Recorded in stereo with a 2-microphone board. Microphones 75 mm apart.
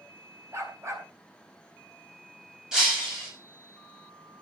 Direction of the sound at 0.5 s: 40° right (ahead or behind).